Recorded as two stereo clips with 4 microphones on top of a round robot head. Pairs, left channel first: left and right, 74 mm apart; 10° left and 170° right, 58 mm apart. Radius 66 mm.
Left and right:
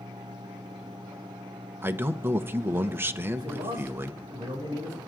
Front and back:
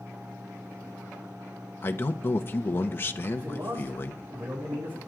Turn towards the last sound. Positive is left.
turn(degrees=-120)